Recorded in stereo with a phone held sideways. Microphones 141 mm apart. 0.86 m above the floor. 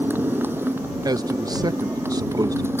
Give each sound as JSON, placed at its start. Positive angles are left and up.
{"t": 0.0, "sound": "a motorcycle", "side_deg": -15}
{"t": 1.1, "sound": "a man speaking", "side_deg": -25}